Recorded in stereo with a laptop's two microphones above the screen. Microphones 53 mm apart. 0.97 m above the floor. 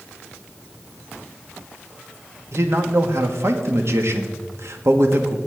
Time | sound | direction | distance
2.5 | a man speaking | 60° right (ahead or behind) | 1.5 m